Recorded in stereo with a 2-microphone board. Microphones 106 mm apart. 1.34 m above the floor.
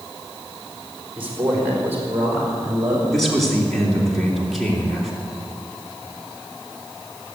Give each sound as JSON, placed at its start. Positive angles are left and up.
{"t": 1.2, "sound": "a man speaking", "side_deg": -15, "distance_m": 3.5}
{"t": 3.1, "sound": "a man speaking", "side_deg": 0, "distance_m": 3.0}